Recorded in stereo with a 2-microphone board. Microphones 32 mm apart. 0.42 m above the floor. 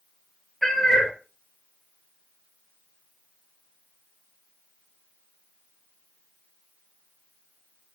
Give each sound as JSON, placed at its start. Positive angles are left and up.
{"t": 0.6, "sound": "a cat meowing", "side_deg": 15, "distance_m": 0.8}